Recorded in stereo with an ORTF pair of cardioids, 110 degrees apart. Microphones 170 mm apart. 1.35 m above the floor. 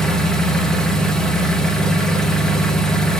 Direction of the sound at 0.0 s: 5° left.